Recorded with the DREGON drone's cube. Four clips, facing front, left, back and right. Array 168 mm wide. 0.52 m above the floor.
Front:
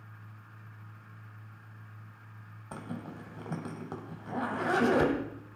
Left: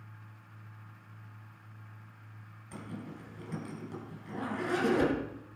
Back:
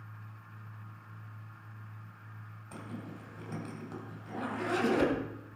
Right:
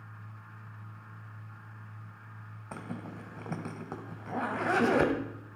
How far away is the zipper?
About 2 m.